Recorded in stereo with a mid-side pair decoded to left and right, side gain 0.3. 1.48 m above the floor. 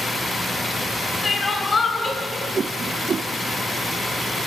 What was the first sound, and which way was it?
Crying, 45° left.